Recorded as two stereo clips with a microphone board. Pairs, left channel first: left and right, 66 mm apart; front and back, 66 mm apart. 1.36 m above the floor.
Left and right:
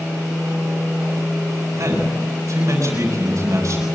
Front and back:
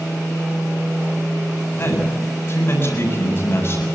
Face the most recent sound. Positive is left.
turn(degrees=-55)